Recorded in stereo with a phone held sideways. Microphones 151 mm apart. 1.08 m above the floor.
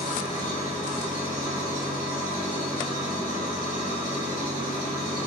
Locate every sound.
0.0 s an engine running: 65° left (ahead or behind), 2.5 m